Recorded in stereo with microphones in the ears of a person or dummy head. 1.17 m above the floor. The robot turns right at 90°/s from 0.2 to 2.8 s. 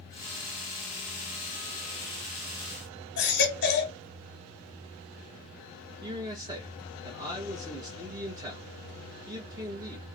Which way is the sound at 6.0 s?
20° right (ahead or behind).